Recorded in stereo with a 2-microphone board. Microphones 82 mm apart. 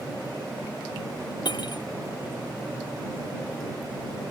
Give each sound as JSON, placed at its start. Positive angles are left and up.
{"t": 1.4, "sound": "cutlery clinking", "side_deg": 65}